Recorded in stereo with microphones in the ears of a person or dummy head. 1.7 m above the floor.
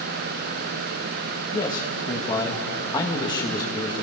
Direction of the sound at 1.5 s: 15° left (ahead or behind).